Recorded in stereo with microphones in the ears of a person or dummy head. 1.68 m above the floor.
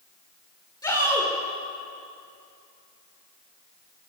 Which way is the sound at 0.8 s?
20° left (ahead or behind).